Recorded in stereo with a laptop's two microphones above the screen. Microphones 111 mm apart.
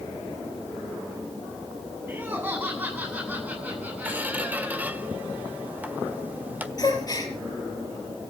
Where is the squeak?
15° right (ahead or behind), 1.3 m.